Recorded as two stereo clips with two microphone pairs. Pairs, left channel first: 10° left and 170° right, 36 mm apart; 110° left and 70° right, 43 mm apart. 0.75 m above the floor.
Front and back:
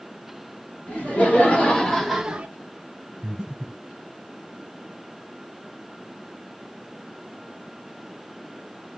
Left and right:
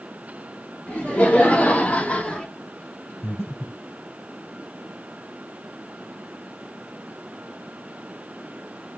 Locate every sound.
0.9 s laughter: 50° left, 2 m; by 2.5 s 165° left, 0.8 m
3.2 s breathing: 115° left, 2.5 m